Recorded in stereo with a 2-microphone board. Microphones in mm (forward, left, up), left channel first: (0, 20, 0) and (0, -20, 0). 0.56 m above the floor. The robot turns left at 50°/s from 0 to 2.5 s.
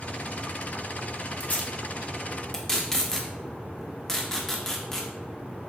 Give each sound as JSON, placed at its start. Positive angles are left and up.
{"t": 1.4, "sound": "tape being pulled", "side_deg": 45, "distance_m": 0.5}